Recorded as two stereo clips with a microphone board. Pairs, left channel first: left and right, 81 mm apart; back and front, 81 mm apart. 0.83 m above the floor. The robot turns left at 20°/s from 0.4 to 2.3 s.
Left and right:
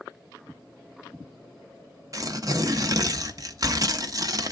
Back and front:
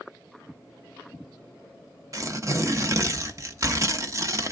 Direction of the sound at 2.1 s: 45° right.